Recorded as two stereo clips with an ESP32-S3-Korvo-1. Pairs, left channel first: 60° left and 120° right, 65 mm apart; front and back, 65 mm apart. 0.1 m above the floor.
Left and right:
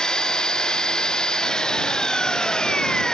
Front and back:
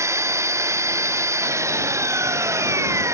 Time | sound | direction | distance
0.0 | an engine running | 140° left | ?